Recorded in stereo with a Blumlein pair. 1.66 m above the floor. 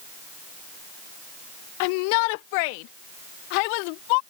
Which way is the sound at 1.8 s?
45° left.